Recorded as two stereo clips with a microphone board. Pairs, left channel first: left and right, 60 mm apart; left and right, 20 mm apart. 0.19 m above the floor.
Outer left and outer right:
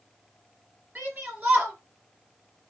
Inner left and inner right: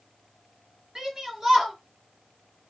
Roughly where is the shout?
Right.